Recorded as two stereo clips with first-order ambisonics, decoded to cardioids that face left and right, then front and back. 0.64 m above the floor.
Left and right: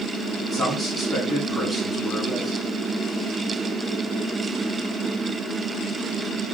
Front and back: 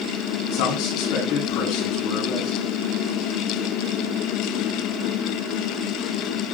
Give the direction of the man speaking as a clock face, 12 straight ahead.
12 o'clock.